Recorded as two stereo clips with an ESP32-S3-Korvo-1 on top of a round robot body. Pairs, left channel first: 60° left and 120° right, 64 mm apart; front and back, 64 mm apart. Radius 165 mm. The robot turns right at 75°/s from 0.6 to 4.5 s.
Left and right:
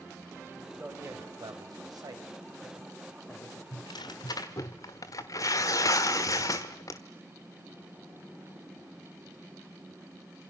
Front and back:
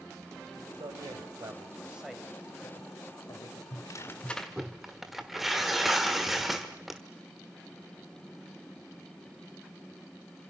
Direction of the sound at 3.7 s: 30° left.